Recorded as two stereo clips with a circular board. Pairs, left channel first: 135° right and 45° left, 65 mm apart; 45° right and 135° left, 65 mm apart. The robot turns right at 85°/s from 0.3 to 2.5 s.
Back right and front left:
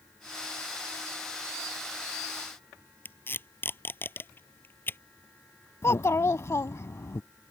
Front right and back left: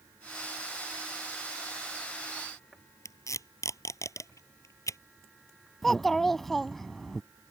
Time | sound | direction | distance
3.0 | tape being pulled | 75° right | ?
5.8 | a child speaking | 130° right | ?